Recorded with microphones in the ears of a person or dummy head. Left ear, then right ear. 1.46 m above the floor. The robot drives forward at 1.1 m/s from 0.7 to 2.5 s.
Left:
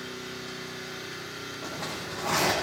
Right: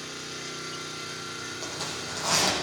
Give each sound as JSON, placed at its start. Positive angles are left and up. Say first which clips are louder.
{"t": 0.0, "sound": "an engine running", "louder": "right 1 dB", "side_deg": -80, "distance_m": 8.0}
{"t": 1.6, "sound": "a zipper", "louder": "even", "side_deg": -80, "distance_m": 8.0}